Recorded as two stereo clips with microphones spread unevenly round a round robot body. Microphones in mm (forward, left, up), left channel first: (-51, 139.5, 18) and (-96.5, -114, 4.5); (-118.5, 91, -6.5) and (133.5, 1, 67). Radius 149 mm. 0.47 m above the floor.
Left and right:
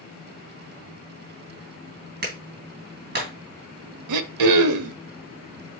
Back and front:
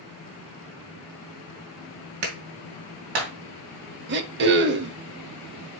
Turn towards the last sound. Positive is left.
turn(degrees=-80)